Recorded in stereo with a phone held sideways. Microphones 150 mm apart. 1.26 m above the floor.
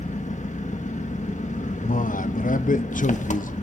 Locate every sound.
0.0 s an engine running: 55° left (ahead or behind), 1.6 m
1.8 s a man speaking: 60° left (ahead or behind), 0.8 m